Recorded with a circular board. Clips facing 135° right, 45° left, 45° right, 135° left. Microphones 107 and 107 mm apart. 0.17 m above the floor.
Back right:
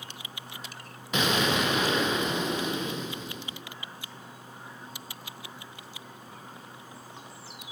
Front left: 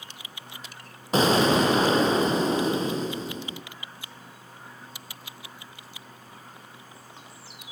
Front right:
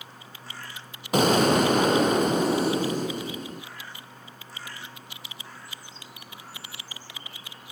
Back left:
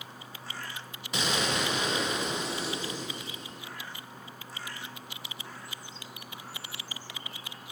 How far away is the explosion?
About 2.5 m.